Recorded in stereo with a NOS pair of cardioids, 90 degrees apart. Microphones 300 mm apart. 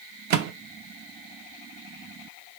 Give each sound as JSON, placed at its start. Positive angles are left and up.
{"t": 0.3, "sound": "a microwave", "azimuth_deg": -65, "distance_m": 0.8}